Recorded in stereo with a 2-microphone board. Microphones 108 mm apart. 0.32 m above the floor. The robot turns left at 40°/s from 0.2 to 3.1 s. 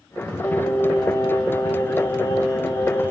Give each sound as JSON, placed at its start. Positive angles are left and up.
{"t": 0.4, "sound": "singing", "azimuth_deg": 170, "distance_m": 0.7}